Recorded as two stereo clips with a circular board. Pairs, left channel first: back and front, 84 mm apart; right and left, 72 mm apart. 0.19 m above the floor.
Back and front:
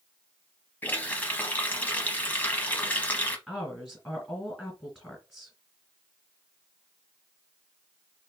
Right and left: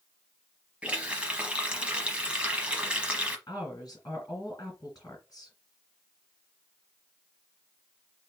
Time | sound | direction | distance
0.8 | a running tap | 140° left | 0.8 m
3.5 | a woman speaking | 90° right | 2.5 m